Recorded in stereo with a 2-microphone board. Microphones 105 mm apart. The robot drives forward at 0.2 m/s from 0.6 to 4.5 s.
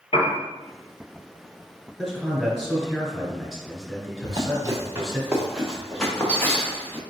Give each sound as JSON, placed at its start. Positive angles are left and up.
{"t": 0.1, "sound": "a piano", "side_deg": 65, "distance_m": 0.8}
{"t": 2.0, "sound": "a man speaking", "side_deg": 5, "distance_m": 1.5}
{"t": 4.2, "sound": "running footsteps", "side_deg": -45, "distance_m": 1.3}